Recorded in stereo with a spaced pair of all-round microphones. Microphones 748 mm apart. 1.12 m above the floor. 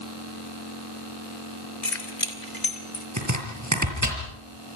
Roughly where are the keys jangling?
Left.